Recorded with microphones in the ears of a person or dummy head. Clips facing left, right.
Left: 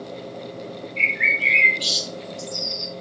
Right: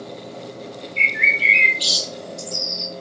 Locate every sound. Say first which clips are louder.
1.0 s a bird: right 1 dB; 15° right (ahead or behind), 1.7 m